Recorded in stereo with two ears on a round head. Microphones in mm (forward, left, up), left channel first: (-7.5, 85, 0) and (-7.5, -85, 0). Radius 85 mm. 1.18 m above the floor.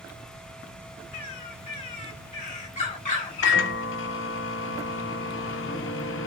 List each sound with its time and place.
1.1 s a bird: 40° left (ahead or behind), 1.6 m
3.4 s a microwave: 70° left (ahead or behind), 0.8 m